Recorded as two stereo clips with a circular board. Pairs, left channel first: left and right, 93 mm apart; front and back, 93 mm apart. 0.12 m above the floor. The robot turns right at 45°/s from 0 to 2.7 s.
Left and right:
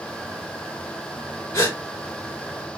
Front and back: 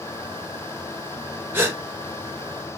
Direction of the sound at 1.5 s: 130° left.